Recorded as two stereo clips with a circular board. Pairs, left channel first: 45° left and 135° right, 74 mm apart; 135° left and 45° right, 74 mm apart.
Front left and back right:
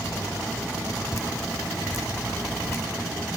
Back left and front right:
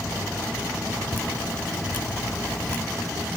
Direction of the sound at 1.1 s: 80° left.